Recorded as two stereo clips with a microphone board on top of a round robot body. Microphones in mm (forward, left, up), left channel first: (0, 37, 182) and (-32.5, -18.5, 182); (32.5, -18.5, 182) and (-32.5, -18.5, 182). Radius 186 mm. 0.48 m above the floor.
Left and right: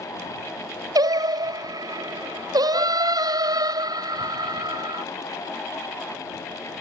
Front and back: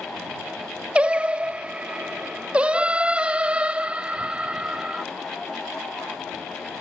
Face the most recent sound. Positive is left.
turn(degrees=-110)